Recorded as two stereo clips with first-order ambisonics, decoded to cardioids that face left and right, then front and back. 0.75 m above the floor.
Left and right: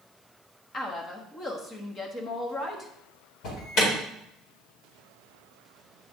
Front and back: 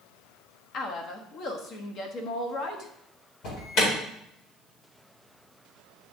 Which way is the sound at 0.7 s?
30° left.